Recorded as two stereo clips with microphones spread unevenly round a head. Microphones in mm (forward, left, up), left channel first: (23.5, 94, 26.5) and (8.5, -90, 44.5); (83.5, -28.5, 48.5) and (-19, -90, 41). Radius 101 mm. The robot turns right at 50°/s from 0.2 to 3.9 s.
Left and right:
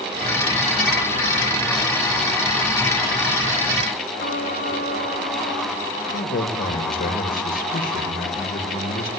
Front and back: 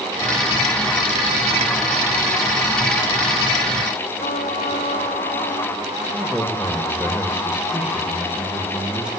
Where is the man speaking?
130° left, 1.4 m.